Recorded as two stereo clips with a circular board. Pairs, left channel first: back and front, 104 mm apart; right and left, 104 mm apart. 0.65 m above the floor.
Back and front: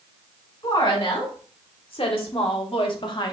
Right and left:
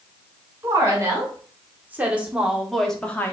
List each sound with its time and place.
0.6 s a woman speaking: 150° left, 2 m; by 3.3 s 155° right, 0.8 m